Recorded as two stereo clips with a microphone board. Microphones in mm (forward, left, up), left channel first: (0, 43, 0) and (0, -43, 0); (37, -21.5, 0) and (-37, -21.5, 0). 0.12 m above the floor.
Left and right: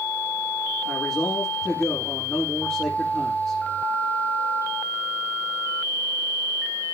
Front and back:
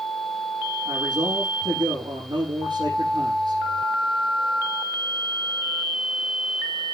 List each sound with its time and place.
0.8 s a man speaking: 165° left, 5.5 m